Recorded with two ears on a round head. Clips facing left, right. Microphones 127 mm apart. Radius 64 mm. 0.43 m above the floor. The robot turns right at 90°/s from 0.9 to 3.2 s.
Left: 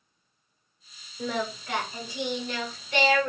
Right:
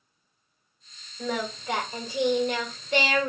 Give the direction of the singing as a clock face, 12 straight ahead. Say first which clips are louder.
Even; 7 o'clock.